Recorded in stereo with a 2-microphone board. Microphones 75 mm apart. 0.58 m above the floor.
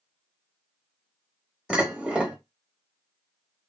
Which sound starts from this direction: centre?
Dishes clattering, at 1.7 s.